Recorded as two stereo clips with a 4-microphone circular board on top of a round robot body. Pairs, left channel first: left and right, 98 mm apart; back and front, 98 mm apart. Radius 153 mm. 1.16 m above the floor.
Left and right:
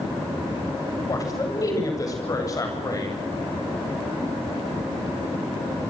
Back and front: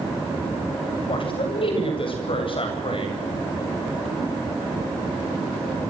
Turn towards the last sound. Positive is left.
turn(degrees=145)